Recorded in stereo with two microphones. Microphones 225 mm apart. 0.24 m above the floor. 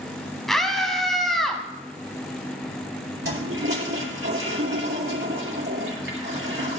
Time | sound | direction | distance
0.5 | a scream | centre (ahead or behind) | 1.7 m
3.2 | a toilet flushing | 60° right (ahead or behind) | 3 m